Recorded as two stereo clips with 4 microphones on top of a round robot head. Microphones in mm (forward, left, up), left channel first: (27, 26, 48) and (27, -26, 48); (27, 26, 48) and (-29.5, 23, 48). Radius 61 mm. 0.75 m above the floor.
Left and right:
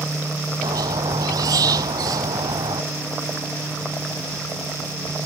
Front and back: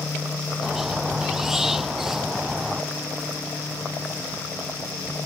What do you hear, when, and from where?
0.6 s a squeak: 90° right